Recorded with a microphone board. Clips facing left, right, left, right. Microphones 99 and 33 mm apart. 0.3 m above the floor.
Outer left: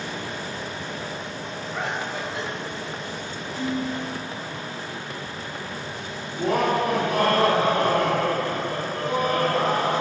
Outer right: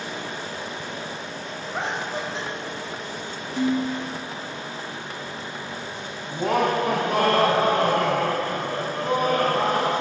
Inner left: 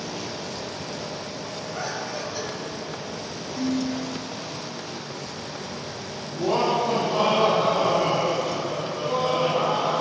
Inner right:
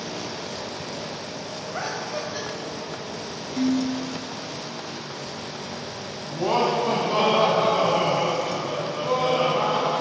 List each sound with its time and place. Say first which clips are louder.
1.7 s laughter: outer right 1 dB, inner right 2 dB; 25° right (ahead or behind), 1.5 m
3.6 s dishes clattering: outer right 4 dB, inner right 3 dB; 70° right (ahead or behind), 2 m
6.3 s laughter: even, inner right 1 dB; 40° right (ahead or behind), 1.8 m